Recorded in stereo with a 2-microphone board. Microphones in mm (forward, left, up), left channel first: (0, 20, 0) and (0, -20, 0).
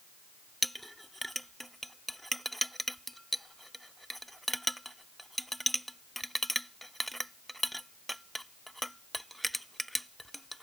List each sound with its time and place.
0.6 s a clink: 5° left (ahead or behind)